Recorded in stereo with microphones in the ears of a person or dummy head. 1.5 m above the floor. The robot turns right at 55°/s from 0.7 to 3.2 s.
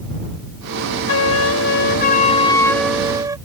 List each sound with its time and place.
1.1 s a flute: 80° left; by 3.4 s 160° right